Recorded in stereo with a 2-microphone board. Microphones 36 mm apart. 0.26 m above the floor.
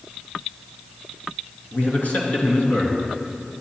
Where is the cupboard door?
No cupboard door in this recording.